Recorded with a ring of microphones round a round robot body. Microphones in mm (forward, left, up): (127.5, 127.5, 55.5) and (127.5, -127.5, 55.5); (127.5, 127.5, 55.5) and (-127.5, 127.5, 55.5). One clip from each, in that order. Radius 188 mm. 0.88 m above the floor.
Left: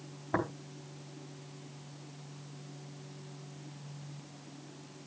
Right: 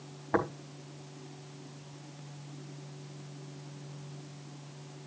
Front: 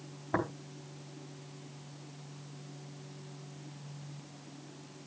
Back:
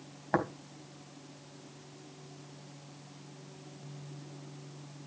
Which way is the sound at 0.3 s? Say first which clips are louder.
Right 3 dB, back 2 dB; 165° right.